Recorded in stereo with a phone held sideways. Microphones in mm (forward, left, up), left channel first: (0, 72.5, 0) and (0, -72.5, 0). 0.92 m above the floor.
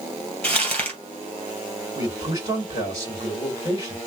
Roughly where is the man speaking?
Right.